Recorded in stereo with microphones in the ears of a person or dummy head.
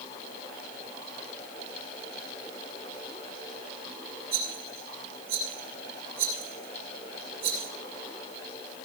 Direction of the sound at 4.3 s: 25° right (ahead or behind).